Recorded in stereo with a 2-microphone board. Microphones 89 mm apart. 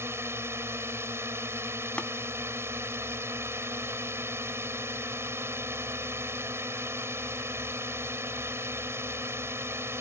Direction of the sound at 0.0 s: 25° right (ahead or behind).